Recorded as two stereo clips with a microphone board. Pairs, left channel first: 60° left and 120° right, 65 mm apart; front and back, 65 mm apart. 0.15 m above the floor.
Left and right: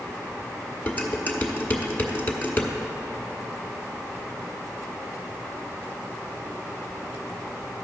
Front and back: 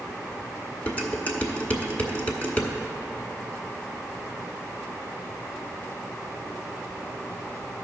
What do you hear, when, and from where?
0.9 s dishes clattering: 45° left, 1.1 m